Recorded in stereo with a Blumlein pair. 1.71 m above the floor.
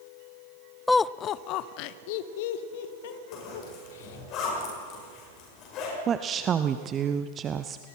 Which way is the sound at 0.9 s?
5° left.